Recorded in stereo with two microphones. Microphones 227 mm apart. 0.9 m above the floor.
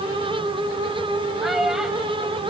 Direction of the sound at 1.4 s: Centre (ahead or behind).